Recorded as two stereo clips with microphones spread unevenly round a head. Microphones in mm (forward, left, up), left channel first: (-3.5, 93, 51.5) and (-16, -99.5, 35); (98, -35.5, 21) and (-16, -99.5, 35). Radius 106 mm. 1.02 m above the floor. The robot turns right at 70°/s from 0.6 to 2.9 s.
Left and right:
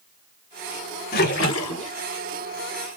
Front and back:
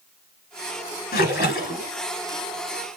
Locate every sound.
1.1 s a splash: 40° left, 2.5 m; by 1.9 s 95° left, 2.5 m